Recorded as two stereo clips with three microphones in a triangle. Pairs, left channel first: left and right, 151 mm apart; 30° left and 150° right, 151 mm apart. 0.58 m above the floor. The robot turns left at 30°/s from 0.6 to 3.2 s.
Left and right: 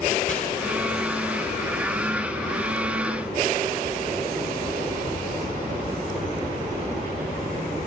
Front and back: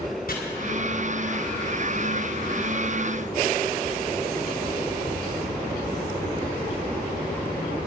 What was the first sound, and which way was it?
Chopping, 55° left.